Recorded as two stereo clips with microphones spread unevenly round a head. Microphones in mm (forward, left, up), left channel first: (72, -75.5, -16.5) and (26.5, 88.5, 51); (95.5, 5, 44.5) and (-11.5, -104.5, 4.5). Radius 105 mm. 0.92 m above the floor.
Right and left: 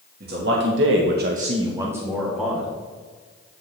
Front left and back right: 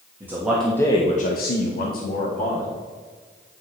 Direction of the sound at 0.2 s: 155° left.